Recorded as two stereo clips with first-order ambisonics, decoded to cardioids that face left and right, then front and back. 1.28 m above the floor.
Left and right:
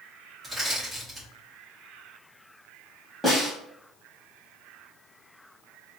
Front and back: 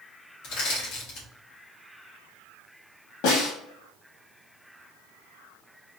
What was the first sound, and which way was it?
Crushing, 5° left.